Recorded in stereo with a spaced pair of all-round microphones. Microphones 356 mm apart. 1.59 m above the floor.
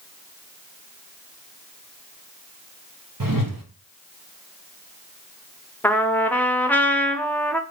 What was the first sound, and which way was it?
A whoosh, 65° right (ahead or behind).